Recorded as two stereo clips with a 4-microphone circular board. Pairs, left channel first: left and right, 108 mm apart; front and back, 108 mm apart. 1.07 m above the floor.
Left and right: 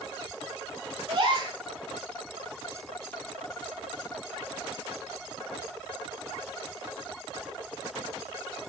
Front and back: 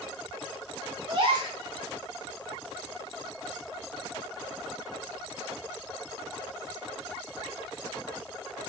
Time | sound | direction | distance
1.1 | a gasp | 135° right | 0.9 m